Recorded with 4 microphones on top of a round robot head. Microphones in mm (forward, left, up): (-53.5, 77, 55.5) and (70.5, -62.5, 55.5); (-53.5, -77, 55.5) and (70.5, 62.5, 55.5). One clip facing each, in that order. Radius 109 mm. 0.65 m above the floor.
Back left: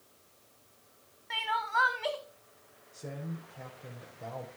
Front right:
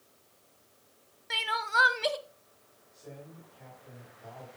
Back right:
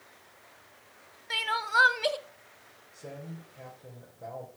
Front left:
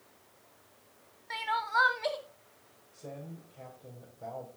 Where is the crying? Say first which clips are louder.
Even, even; 80° right, 0.6 m.